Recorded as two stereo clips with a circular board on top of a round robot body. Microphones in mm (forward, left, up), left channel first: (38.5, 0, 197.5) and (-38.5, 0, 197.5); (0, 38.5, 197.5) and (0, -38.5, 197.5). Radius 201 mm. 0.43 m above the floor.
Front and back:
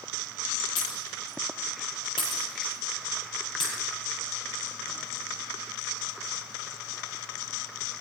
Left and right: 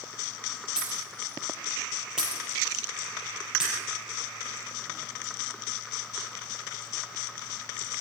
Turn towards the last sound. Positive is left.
turn(degrees=-10)